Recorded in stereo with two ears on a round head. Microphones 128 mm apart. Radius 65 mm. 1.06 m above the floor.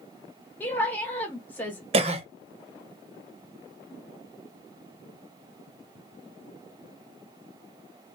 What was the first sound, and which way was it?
A woman speaking, 10° left (ahead or behind).